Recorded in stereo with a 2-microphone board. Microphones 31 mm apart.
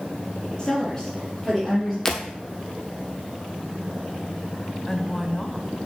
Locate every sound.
0.6 s a woman speaking: 30° left (ahead or behind), 4 m; by 1.9 s 5° left (ahead or behind), 3.5 m
2.0 s breaking glass: 10° left (ahead or behind), 1.3 m
4.9 s a woman speaking: 10° left (ahead or behind), 1.1 m